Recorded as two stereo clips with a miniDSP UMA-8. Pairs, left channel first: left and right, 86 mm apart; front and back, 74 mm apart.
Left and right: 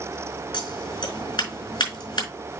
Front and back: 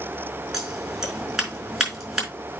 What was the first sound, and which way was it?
Scissors, 95° left.